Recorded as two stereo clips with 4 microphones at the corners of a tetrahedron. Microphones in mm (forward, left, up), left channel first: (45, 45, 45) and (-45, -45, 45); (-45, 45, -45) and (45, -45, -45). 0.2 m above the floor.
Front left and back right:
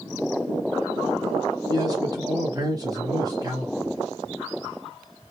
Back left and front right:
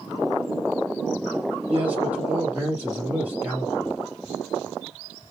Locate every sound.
1.7 s a man speaking: 105° right, 1.1 m